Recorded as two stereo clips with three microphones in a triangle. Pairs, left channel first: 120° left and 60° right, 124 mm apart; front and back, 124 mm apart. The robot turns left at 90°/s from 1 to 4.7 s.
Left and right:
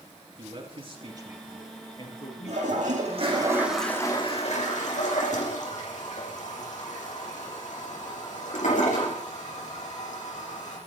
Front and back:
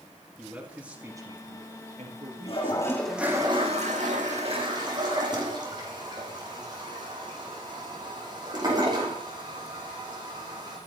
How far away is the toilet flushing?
About 6 m.